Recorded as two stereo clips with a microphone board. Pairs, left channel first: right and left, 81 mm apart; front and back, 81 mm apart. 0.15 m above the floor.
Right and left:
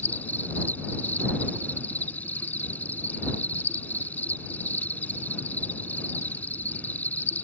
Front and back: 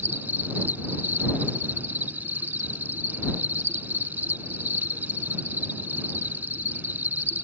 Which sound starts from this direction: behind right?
An insect, at 0.0 s.